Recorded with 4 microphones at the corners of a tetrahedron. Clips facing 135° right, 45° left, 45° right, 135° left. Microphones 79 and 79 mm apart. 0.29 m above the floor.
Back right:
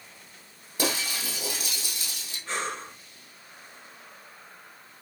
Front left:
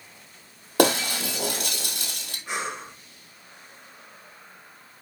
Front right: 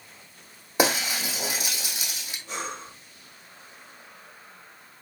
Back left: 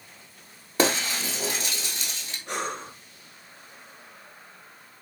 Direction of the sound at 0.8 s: 35° left.